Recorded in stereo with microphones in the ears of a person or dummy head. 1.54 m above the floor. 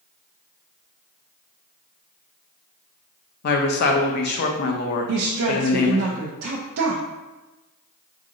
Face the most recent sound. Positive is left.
turn(degrees=-70)  # may be behind; listen again after turning